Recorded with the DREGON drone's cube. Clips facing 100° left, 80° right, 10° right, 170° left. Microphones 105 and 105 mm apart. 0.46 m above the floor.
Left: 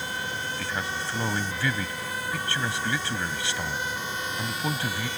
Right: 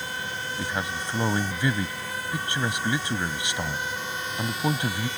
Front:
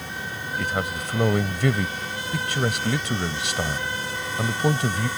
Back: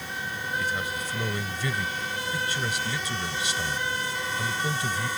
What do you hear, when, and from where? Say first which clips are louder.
0.6 s a man speaking: right 4 dB, front 5 dB; 10° right